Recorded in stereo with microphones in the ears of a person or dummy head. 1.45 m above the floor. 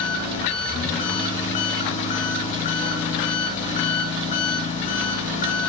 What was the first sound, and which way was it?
An engine running, 35° left (ahead or behind).